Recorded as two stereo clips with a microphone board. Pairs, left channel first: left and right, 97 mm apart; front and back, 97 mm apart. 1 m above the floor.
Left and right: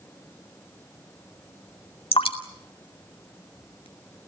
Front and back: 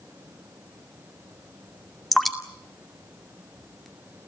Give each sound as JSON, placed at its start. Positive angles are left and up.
{"t": 2.1, "sound": "dripping", "azimuth_deg": 90, "distance_m": 2.5}